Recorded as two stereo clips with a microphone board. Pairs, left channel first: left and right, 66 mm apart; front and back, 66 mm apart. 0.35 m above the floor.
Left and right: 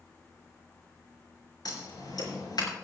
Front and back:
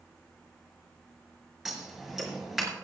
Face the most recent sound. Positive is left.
turn(degrees=100)